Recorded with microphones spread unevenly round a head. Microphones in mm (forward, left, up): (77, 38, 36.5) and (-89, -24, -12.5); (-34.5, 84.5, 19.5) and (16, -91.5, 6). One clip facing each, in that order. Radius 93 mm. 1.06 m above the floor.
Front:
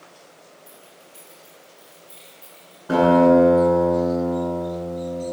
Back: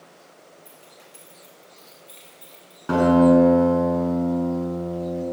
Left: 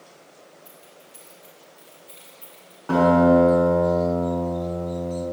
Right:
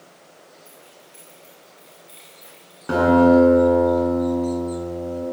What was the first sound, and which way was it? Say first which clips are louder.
Keys jangling: front 1 dB, right 1 dB; straight behind.